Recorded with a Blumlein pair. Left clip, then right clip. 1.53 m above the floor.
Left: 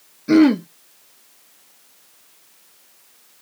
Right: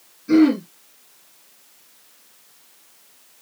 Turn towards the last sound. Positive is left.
turn(degrees=65)